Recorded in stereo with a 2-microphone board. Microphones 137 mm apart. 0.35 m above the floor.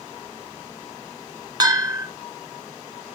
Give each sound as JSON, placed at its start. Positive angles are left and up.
{"t": 1.6, "sound": "a bell", "side_deg": -30, "distance_m": 0.6}